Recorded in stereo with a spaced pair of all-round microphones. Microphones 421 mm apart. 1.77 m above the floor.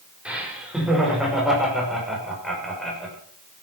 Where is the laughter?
5° right (ahead or behind), 4.5 m; by 3.1 s centre (ahead or behind), 6.5 m.